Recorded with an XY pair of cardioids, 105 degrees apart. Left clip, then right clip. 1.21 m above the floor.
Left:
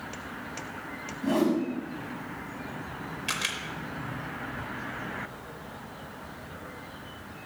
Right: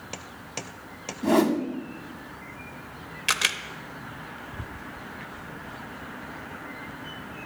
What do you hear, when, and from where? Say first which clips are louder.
1.2 s a whoosh: right 4 dB; 60° right, 0.9 m
3.3 s a camera shutter: right 7 dB; 50° right, 0.6 m